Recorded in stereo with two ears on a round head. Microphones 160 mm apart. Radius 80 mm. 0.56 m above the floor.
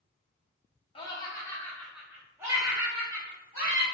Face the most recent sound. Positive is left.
turn(degrees=-30)  # may be behind; listen again after turning